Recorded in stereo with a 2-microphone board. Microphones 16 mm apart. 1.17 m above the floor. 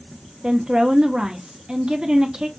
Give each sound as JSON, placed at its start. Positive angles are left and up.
{"t": 0.4, "sound": "a woman speaking", "side_deg": -50, "distance_m": 0.8}